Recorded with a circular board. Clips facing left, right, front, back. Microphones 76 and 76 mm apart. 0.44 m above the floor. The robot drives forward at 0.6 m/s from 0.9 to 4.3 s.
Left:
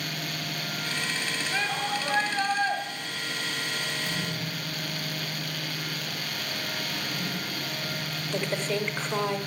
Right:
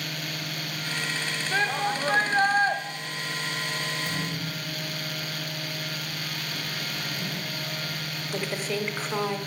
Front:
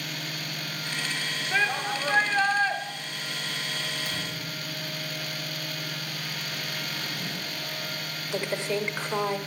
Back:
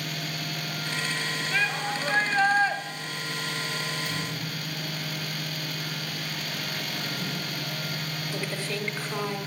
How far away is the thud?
About 6 m.